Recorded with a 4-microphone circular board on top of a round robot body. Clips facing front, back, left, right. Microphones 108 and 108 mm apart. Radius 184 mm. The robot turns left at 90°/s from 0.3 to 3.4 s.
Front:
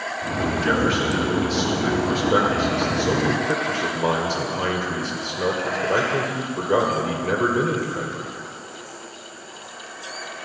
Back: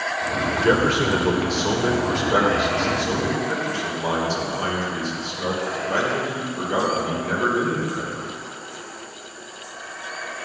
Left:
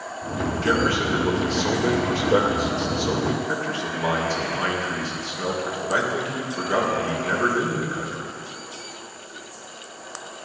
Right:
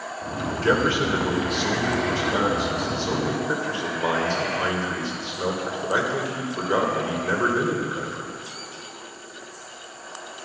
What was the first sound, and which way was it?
A man speaking, 135° right.